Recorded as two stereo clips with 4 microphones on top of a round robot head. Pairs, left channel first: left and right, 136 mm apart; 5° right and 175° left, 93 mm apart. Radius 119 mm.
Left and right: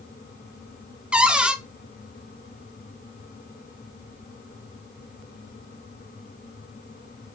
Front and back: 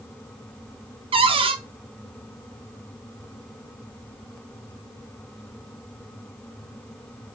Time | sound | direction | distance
1.1 | a cupboard door | 175° right | 0.6 m